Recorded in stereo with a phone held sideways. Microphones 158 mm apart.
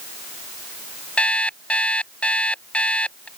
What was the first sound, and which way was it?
An alarm clock, 5° left (ahead or behind).